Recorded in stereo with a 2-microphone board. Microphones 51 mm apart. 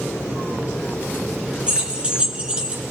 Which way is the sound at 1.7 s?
20° right (ahead or behind).